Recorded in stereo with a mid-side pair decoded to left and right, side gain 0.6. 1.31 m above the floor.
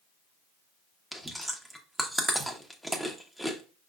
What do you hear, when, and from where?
1.1 s chewing: straight ahead, 1.1 m